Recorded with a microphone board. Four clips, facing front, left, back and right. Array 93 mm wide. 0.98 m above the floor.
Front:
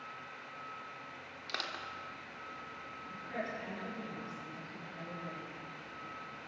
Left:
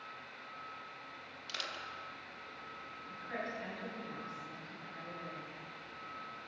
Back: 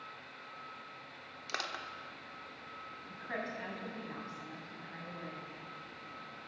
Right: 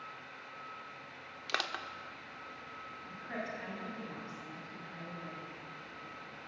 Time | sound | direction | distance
1.5 | crushing | 100° right | 1.1 m
3.1 | a woman speaking | 165° right | 6.5 m